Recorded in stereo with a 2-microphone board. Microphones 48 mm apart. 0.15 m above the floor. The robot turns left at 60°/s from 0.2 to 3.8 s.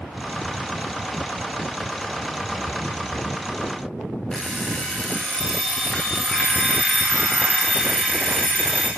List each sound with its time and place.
4.3 s an alarm clock: 15° left (ahead or behind), 6.5 m